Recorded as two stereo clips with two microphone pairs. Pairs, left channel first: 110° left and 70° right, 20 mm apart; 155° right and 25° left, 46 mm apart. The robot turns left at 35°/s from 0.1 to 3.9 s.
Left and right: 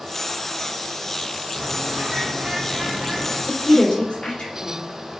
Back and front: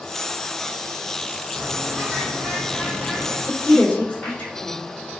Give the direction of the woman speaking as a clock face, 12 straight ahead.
7 o'clock.